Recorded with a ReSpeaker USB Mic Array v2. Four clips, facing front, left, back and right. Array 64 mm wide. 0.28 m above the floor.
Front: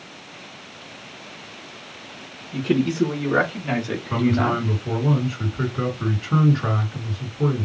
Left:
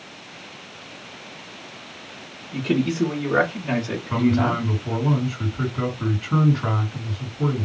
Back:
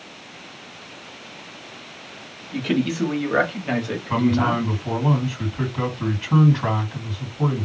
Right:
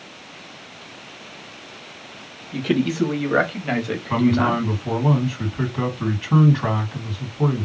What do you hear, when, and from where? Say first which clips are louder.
2.5 s a man speaking: right 1 dB, front 1 dB; 135° right, 1.5 m; by 4.6 s 60° right, 1.3 m
4.1 s a man speaking: right 2 dB, back 1 dB; 135° right, 2.5 m